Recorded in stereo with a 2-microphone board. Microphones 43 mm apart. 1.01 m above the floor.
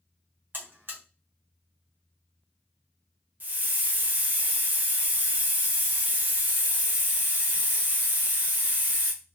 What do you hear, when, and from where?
0.5 s a buzzer: 50° right (ahead or behind), 0.8 m
3.4 s a hiss: 40° right (ahead or behind), 0.6 m